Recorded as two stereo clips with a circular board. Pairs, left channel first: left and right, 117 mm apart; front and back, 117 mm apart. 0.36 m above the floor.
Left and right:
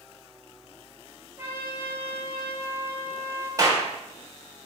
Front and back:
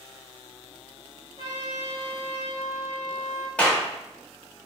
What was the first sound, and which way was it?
A trumpet, 25° right.